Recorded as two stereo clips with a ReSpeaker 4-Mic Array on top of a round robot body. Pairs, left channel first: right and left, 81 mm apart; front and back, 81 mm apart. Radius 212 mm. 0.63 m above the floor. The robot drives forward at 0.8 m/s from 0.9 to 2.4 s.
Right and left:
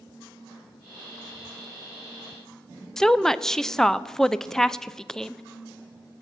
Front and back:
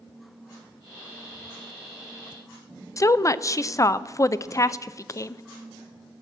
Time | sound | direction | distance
3.0 | a woman speaking | 10° right | 0.6 m